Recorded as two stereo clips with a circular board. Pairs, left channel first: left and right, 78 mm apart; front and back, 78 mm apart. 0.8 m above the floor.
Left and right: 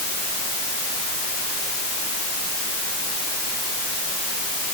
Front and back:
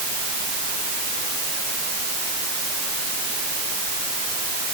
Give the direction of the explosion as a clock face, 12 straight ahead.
No explosion in this recording.